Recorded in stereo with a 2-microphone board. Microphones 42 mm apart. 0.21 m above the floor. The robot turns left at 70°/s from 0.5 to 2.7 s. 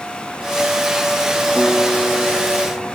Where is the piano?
150° left, 5 m; by 2.9 s 70° left, 5 m.